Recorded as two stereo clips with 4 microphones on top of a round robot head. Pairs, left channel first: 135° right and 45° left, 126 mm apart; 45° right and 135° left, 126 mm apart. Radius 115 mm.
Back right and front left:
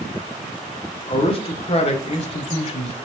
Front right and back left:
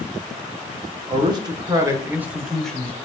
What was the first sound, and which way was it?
A man speaking, 175° right.